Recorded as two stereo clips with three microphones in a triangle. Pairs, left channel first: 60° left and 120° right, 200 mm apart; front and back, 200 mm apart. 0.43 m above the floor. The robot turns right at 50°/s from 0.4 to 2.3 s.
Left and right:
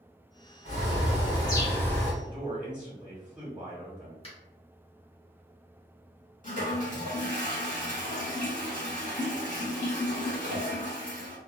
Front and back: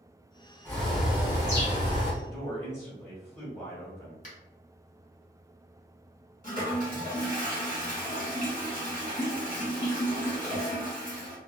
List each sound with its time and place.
0.7 s a bird: 75° left, 1.4 m; by 2.1 s 145° left, 1.4 m
2.2 s a man speaking: 55° right, 1.2 m
4.2 s a finger snap: 20° left, 1.1 m
6.4 s a toilet flushing: 30° left, 1.6 m